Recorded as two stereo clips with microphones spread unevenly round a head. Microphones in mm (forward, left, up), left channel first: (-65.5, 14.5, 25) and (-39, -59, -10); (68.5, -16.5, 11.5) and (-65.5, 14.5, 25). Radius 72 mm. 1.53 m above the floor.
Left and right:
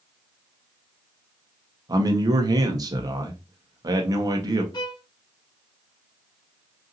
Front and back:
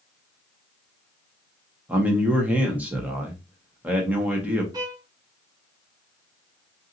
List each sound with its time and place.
1.9 s a man speaking: 115° right, 1.2 m
4.7 s a violin: 105° left, 0.8 m